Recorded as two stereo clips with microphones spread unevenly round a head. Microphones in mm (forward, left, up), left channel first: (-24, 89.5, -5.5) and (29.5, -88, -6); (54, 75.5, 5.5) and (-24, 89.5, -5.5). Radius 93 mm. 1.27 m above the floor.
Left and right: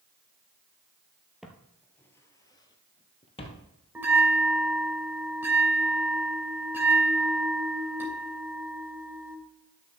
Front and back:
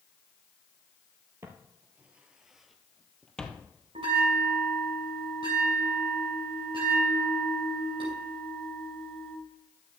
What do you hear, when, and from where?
1.4 s footsteps: 155° right, 1.3 m; by 3.7 s 55° left, 1.9 m
4.0 s a bell: 150° right, 2.5 m